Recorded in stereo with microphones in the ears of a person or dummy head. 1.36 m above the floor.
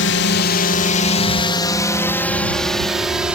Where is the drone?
65° left (ahead or behind); by 3.4 s 5° right (ahead or behind).